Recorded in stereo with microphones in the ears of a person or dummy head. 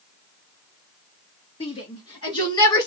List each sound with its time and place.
1.6 s a shout: 25° left (ahead or behind), 3 m; by 2.9 s 20° left (ahead or behind), 2 m